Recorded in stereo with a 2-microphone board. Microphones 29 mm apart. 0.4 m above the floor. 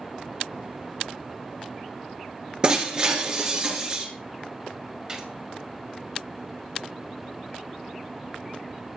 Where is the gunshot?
25° right (ahead or behind), 2 m.